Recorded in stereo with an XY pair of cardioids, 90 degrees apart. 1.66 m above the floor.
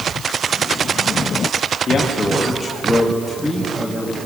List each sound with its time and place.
1.9 s a man speaking: 45° left, 2.5 m; by 4.2 s 5° right, 2.5 m